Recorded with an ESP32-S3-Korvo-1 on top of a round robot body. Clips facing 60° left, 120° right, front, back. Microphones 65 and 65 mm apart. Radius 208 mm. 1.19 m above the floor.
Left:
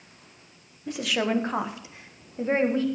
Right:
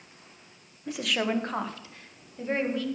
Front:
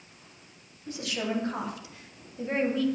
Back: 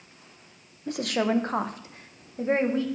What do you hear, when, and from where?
0.9 s a woman speaking: 150° left, 1.5 m; by 3.0 s 120° left, 2 m